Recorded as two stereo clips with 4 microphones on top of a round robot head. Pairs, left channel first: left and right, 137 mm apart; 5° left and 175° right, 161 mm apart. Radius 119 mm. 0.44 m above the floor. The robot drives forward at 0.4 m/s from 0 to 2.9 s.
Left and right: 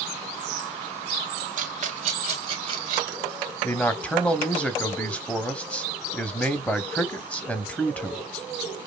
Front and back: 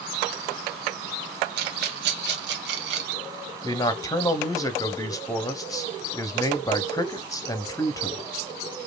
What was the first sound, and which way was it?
A rattle, 135° right.